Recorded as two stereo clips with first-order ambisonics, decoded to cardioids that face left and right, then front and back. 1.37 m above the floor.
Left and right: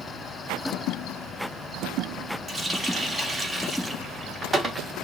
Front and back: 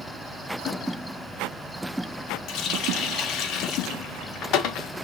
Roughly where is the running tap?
Ahead.